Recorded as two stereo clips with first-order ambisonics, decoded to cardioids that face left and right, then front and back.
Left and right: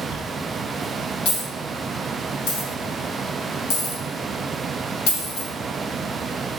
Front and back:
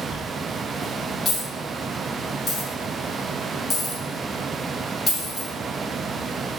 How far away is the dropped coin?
About 2.0 m.